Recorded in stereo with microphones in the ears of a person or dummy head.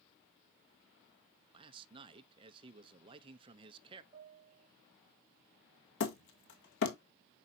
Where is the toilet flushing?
I don't hear a toilet flushing.